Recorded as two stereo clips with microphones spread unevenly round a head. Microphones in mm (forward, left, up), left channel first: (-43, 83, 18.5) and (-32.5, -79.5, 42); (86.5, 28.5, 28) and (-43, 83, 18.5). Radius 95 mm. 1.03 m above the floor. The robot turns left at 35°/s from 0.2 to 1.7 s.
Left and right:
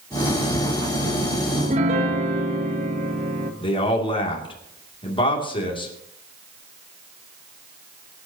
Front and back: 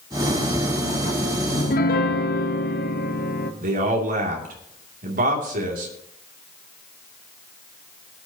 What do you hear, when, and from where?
1.5 s a piano: 30° right, 1.1 m; by 3.5 s 35° right, 1.1 m
3.6 s a man speaking: 150° left, 2.5 m